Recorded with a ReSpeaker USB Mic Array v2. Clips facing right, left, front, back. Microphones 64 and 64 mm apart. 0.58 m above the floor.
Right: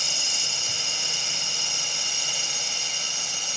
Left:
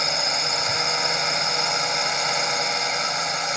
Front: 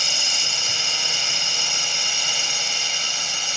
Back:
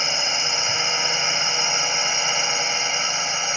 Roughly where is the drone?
Behind left.